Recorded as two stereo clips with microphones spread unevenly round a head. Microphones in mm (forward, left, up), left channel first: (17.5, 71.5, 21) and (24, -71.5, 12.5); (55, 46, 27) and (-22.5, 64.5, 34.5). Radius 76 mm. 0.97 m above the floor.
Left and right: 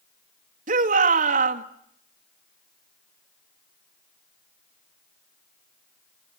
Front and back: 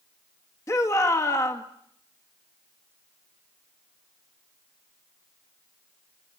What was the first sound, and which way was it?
A shout, 65° right.